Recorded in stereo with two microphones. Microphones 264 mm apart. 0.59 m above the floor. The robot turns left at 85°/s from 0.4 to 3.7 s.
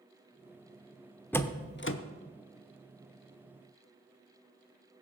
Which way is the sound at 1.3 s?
5° left (ahead or behind).